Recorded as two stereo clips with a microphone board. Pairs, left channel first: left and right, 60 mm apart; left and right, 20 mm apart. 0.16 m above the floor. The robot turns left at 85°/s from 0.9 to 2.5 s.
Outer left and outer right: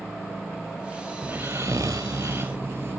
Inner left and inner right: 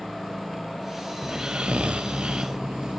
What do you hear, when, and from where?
1.2 s snoring: 30° right, 1.1 m; by 3.0 s 135° right, 1.1 m